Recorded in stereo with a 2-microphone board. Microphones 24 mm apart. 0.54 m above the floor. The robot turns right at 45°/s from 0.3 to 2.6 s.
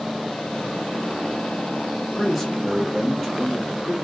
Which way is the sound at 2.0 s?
20° left (ahead or behind).